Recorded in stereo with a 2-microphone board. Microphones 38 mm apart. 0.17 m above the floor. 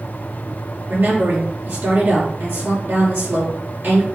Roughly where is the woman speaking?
Right.